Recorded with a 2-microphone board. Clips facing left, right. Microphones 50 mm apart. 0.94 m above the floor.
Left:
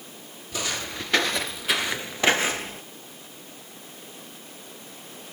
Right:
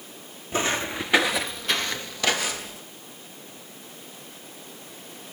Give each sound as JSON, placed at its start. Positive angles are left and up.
{"t": 0.5, "sound": "footsteps", "side_deg": -30, "distance_m": 1.0}